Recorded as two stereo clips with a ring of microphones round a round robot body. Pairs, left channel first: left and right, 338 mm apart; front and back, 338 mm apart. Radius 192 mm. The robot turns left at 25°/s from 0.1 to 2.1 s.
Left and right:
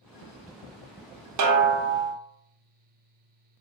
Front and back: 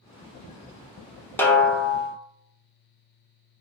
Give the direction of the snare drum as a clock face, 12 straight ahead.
3 o'clock.